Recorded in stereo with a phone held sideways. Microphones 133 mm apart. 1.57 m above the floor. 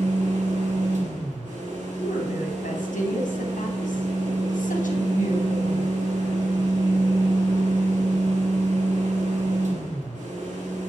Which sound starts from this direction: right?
A fan, at 0.0 s.